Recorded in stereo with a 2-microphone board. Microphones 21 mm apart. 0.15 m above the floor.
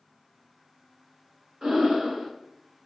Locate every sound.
1.6 s breathing: 30° right (ahead or behind), 0.8 m